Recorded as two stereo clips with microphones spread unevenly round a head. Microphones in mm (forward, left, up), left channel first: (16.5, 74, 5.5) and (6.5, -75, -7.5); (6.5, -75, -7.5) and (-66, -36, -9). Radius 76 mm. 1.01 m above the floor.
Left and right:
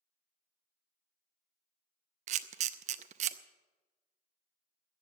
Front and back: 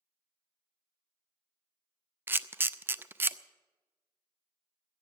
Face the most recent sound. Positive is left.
turn(degrees=-140)